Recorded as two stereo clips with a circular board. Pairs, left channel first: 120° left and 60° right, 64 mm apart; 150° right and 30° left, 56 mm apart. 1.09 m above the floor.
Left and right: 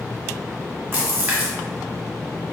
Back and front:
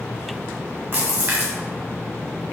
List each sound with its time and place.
0.9 s a splash: 10° right, 1.0 m